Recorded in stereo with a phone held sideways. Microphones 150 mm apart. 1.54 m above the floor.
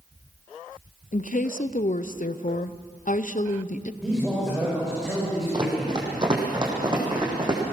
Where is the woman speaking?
60° left (ahead or behind), 0.7 m.